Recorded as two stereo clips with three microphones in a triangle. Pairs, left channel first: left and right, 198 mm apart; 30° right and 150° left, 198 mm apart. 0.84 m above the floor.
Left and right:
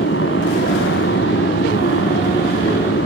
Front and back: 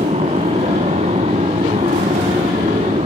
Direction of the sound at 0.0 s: 95° left.